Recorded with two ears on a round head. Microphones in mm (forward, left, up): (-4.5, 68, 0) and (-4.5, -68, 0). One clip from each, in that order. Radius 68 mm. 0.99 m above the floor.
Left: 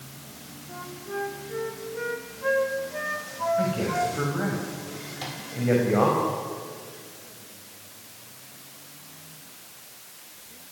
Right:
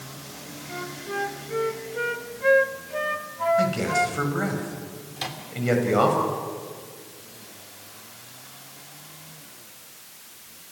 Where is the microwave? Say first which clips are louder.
Right 5 dB; 35° right (ahead or behind), 3 m.